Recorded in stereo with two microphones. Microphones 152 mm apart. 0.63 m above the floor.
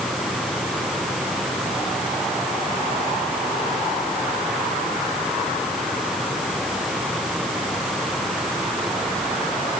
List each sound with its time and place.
Only background noise.